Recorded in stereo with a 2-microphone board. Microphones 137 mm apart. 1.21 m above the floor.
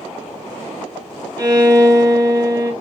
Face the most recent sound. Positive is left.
turn(degrees=-25)  # may be behind; listen again after turning